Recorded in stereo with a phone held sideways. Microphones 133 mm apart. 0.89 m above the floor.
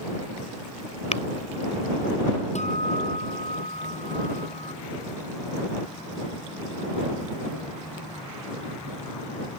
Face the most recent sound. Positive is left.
turn(degrees=60)  # may be behind; listen again after turning